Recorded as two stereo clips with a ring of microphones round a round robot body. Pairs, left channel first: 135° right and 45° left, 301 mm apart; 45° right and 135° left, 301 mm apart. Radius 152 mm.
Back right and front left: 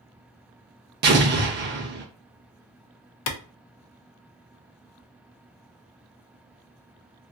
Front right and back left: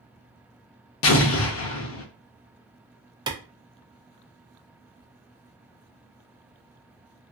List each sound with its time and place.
1.0 s an explosion: 5° right, 0.6 m
3.3 s a clap: 150° right, 0.5 m